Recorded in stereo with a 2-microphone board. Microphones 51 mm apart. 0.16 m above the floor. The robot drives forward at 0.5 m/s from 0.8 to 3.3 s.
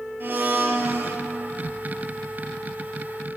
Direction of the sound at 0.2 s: 40° right (ahead or behind).